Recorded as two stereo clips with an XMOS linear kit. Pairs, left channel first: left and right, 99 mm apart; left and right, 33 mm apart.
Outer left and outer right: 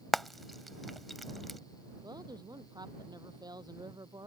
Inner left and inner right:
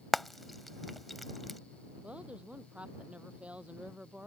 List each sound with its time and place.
0.1 s frying: centre (ahead or behind)
2.0 s a woman speaking: 40° right (ahead or behind)